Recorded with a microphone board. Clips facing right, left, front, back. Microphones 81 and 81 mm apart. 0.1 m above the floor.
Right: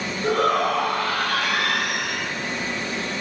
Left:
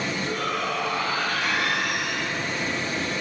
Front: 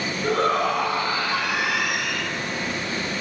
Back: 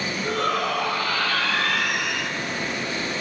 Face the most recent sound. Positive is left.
turn(degrees=-100)